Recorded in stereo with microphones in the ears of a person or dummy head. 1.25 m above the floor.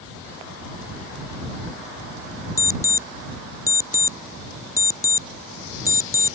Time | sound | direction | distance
2.6 | an alarm clock | 20° left (ahead or behind) | ?